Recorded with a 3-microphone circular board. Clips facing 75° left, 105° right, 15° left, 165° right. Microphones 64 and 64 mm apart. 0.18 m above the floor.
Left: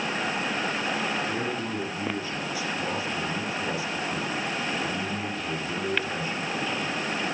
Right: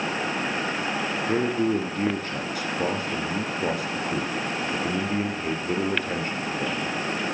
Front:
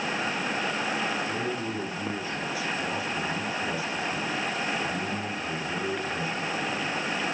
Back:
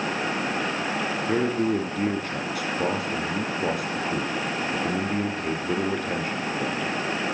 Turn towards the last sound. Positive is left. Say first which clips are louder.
# right 7 dB, back 7 dB
turn(degrees=-140)